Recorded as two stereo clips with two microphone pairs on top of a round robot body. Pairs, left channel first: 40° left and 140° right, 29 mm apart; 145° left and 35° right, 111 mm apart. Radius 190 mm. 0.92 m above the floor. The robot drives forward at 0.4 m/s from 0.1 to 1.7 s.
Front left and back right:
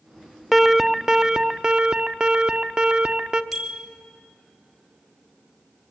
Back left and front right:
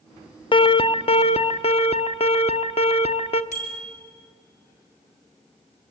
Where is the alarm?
140° left, 0.8 m; by 3.4 s 160° left, 1.1 m.